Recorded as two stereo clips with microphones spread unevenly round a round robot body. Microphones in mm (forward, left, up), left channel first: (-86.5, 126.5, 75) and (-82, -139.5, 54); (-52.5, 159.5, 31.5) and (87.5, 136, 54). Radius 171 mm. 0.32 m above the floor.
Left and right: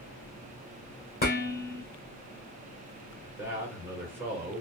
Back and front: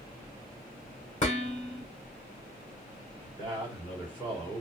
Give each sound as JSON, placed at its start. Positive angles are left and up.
{"t": 1.2, "sound": "dishes clattering", "azimuth_deg": 145, "distance_m": 2.0}
{"t": 3.2, "sound": "a man speaking", "azimuth_deg": -150, "distance_m": 1.5}